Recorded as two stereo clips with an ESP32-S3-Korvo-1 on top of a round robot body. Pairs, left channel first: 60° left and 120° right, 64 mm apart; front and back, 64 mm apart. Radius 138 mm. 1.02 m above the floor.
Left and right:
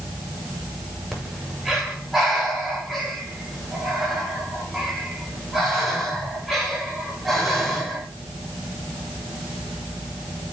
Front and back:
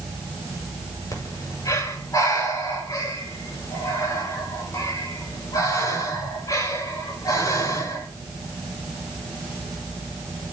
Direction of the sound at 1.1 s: 30° right.